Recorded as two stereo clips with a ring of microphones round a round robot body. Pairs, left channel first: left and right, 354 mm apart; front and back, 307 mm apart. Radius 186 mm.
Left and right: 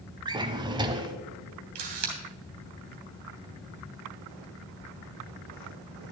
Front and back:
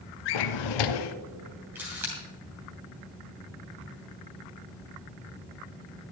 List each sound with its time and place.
0.2 s a drawer: 10° right, 0.6 m
1.8 s a camera shutter: 95° right, 3 m